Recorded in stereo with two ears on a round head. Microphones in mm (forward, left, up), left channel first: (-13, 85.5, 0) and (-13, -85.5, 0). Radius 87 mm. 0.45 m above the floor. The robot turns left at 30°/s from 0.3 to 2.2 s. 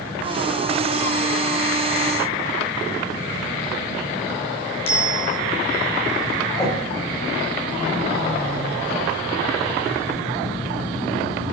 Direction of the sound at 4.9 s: 75° left (ahead or behind).